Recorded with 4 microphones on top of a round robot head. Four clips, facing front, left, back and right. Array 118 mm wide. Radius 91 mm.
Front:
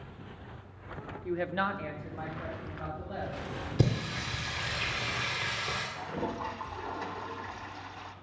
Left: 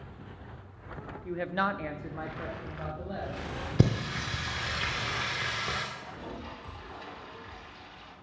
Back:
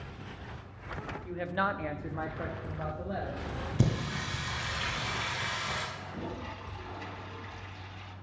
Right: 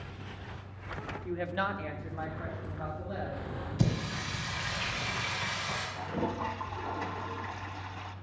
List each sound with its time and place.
1.2 s a woman speaking: 5° left, 0.9 m; by 3.4 s 155° left, 3 m
3.8 s singing: 70° left, 1.8 m
6.0 s a toilet flushing: 55° right, 0.6 m